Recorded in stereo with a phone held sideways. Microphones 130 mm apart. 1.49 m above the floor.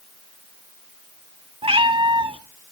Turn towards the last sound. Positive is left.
turn(degrees=-40)  # may be behind; listen again after turning